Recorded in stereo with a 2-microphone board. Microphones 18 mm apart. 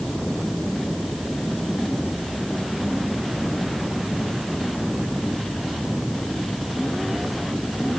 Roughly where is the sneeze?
No sneeze in this recording.